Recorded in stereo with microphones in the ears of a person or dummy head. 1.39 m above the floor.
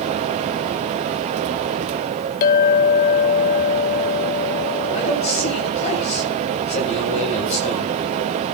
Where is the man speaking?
35° left (ahead or behind), 7.5 m.